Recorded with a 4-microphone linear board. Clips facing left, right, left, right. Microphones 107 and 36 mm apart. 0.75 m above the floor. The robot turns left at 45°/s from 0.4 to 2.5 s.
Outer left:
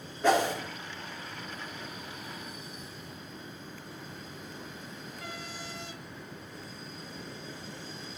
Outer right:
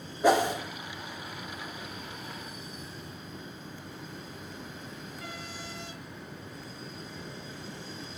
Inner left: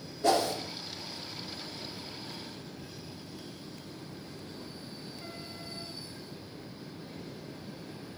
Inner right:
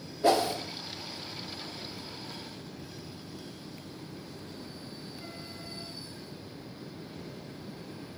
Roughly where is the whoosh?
Centre.